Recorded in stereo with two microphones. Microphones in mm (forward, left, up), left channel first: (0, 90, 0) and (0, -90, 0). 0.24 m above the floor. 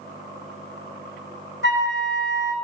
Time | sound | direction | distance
1.6 | a flute | 75° left (ahead or behind) | 1.1 m